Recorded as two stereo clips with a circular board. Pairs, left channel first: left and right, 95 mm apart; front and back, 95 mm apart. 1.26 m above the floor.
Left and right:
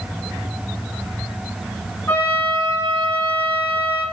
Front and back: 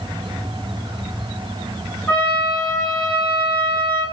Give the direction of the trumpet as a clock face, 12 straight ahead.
10 o'clock.